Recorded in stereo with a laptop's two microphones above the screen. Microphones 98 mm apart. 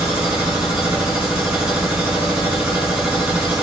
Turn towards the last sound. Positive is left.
turn(degrees=-10)  # may be behind; listen again after turning